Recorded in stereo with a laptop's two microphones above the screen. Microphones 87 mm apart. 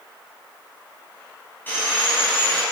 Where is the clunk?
I don't hear a clunk.